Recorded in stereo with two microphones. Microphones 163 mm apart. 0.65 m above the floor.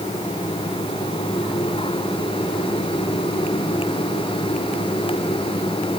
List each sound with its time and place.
Only background noise.